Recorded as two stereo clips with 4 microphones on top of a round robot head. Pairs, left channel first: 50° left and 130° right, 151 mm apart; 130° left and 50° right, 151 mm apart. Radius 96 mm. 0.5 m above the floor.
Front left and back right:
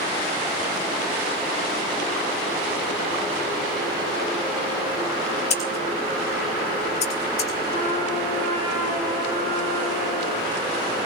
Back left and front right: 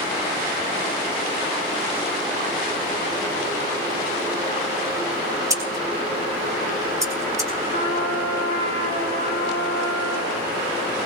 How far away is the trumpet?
About 8.5 m.